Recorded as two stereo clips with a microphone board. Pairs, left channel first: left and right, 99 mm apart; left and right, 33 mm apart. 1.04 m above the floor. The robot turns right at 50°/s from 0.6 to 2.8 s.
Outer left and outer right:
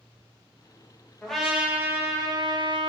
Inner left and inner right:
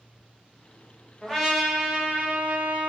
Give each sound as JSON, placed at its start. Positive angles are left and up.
{"t": 1.2, "sound": "a trumpet", "azimuth_deg": 170, "distance_m": 1.2}